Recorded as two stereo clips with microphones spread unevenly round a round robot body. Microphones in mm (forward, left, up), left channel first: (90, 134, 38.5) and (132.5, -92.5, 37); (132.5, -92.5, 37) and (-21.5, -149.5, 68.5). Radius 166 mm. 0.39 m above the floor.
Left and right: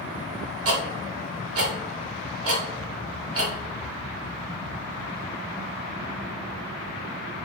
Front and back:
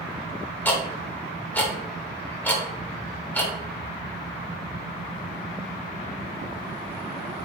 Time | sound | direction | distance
0.7 | ticking | 60° right | 0.9 m